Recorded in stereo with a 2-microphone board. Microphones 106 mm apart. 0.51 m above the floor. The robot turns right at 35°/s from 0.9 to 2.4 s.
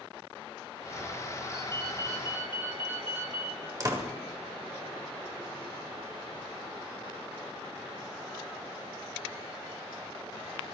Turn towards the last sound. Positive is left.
turn(degrees=-35)  # may be behind; listen again after turning